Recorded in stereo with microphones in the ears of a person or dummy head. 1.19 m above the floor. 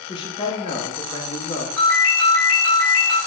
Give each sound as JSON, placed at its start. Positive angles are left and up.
{"t": 0.1, "sound": "a man speaking", "side_deg": 30, "distance_m": 0.6}
{"t": 1.8, "sound": "a ringtone", "side_deg": 70, "distance_m": 2.0}